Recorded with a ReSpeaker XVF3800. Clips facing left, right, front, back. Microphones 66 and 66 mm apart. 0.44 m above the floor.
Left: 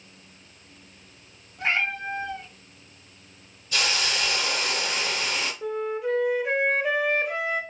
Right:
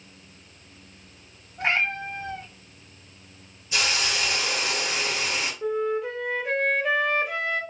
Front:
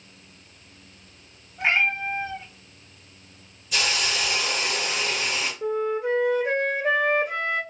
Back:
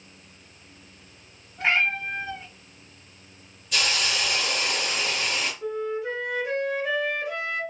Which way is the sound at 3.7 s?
80° right.